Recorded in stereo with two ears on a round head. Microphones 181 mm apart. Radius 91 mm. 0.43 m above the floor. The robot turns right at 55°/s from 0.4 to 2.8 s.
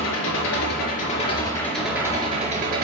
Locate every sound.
0.0 s an engine running: 100° left, 4 m; by 2.8 s 125° right, 4 m